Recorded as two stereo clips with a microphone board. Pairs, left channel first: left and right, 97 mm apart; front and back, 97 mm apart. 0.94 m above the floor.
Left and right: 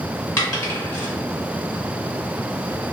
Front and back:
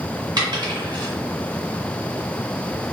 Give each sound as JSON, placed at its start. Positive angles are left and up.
{"t": 0.4, "sound": "a dropped coin", "azimuth_deg": 145, "distance_m": 1.7}